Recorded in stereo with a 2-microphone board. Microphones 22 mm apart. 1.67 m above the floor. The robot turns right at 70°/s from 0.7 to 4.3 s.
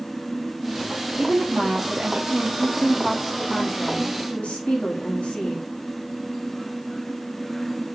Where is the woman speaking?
140° right, 4 m; by 5.7 s 80° left, 4 m.